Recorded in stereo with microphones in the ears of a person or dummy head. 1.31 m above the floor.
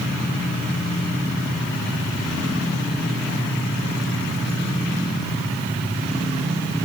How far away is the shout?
I don't hear a shout.